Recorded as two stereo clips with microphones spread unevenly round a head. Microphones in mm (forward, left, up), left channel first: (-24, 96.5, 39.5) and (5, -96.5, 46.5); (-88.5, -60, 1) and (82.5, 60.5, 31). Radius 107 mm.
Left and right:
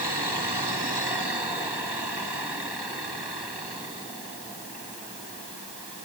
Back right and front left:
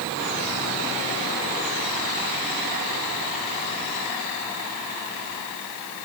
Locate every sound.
Only background noise.